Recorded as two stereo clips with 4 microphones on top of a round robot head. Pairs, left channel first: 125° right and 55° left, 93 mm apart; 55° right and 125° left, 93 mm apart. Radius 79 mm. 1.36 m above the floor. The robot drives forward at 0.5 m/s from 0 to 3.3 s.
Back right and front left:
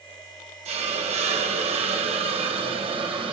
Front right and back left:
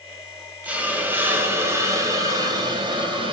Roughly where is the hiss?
Ahead left.